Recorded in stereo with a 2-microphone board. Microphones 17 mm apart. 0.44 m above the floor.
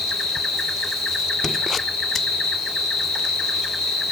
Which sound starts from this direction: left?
An insect, at 0.0 s.